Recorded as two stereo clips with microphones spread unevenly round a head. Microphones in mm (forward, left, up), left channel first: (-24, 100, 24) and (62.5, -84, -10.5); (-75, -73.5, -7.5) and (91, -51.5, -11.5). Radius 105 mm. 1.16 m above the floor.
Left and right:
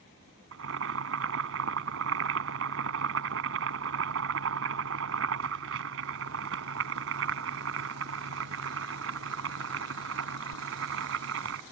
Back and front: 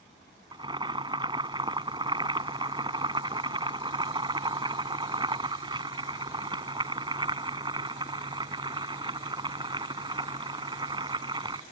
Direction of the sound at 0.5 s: 50° right.